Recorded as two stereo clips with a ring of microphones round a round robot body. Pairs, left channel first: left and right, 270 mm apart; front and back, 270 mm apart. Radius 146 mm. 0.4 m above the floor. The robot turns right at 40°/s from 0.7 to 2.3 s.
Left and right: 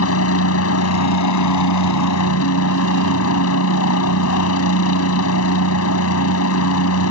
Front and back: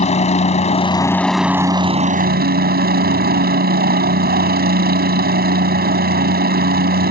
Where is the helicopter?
65° left; by 7.1 s 130° left.